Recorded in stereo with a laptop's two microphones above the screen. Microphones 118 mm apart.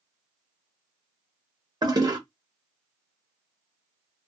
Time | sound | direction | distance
1.8 | a toilet flushing | 35° right (ahead or behind) | 0.9 m